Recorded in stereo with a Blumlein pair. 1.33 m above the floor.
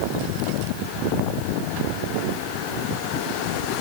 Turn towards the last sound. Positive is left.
No sound to turn to.